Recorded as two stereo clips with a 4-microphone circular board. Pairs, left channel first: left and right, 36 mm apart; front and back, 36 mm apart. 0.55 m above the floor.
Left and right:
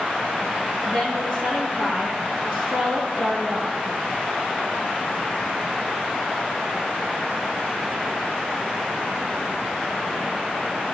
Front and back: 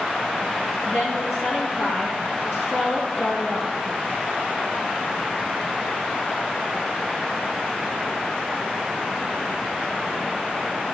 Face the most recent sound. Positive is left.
turn(degrees=10)